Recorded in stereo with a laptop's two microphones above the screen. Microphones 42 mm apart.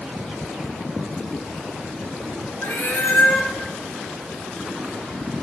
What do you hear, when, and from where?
2.6 s a cat meowing: 60° left (ahead or behind), 2 m